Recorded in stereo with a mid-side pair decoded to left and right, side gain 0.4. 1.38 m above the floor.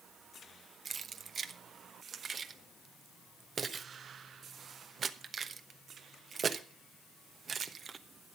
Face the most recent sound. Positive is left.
turn(degrees=-50)